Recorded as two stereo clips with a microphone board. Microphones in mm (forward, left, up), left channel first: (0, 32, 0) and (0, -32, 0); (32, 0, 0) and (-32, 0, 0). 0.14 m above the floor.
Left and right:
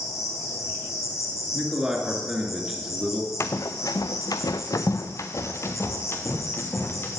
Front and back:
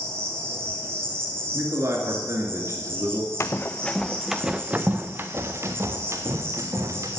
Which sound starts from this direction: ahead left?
Running footsteps, at 3.4 s.